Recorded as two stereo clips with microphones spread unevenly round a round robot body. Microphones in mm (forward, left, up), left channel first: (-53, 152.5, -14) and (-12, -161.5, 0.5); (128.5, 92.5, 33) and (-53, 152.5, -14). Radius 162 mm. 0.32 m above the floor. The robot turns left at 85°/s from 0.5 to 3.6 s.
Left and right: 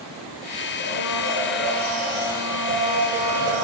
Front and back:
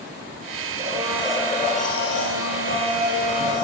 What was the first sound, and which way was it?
A blender, 125° left.